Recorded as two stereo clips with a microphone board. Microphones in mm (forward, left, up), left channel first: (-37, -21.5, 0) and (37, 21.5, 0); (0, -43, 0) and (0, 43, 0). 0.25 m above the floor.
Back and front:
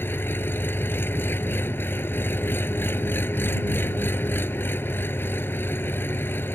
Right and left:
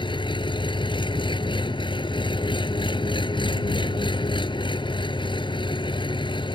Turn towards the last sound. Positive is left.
turn(degrees=-85)